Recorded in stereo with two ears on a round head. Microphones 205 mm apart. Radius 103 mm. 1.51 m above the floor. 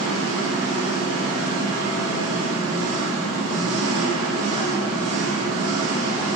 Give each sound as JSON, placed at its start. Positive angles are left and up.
{"t": 0.0, "sound": "an engine running", "side_deg": -75, "distance_m": 2.0}